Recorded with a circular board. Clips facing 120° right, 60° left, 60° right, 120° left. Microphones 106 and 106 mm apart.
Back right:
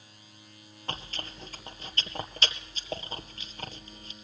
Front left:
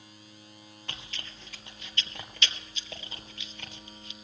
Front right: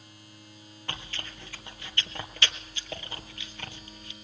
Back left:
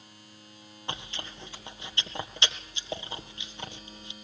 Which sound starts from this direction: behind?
Chewing, at 0.9 s.